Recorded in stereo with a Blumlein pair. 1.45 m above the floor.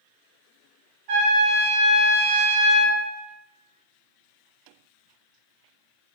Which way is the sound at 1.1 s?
45° right.